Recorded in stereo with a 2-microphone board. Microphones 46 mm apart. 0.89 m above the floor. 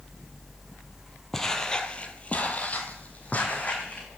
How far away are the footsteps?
About 1.1 m.